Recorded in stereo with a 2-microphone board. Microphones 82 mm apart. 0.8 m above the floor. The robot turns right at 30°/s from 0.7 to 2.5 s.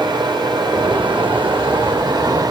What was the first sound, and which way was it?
Running water, 110° right.